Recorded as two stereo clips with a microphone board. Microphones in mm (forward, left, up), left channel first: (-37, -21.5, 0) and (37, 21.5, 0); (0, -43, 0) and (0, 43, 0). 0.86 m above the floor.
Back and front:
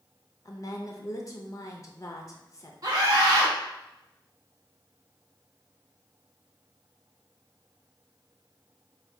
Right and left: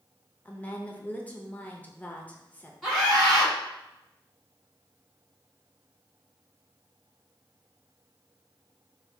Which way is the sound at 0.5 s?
155° right.